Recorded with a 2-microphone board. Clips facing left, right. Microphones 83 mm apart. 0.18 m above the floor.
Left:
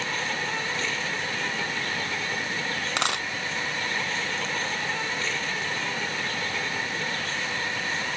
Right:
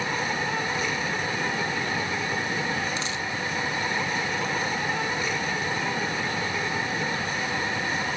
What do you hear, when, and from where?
0.0 s an insect: 15° right (ahead or behind)
3.0 s a dropped coin: 65° left (ahead or behind)